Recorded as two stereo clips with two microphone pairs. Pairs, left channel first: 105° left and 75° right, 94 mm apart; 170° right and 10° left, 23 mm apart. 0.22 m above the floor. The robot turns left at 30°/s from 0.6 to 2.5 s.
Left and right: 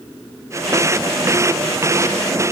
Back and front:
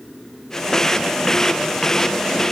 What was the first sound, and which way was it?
Only background noise.